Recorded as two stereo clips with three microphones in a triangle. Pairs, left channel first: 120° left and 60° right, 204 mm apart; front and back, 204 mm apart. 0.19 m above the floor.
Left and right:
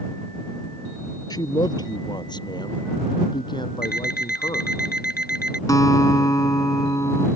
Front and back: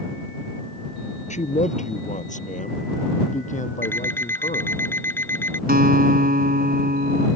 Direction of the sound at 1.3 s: 50° left.